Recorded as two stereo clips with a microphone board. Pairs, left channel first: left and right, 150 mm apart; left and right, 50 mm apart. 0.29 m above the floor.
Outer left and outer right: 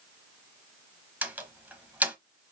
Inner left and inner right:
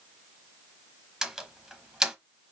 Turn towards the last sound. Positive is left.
turn(degrees=-10)  # may be behind; listen again after turning